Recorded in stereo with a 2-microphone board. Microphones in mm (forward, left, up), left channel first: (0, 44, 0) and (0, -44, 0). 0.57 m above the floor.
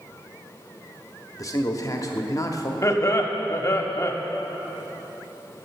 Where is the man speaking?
40° left (ahead or behind), 0.9 m.